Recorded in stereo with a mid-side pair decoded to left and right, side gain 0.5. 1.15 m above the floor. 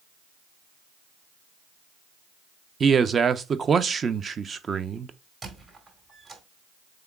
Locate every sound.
2.8 s a man speaking: 40° right, 0.6 m
5.4 s a squeak: 35° right, 2.5 m